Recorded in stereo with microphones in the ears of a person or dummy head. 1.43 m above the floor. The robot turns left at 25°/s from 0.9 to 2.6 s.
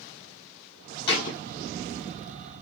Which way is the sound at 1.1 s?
55° left (ahead or behind).